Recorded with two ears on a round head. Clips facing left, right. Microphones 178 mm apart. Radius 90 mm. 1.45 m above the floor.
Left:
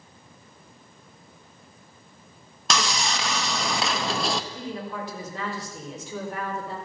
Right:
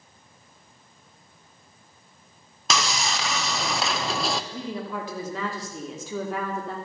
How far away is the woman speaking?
About 3 m.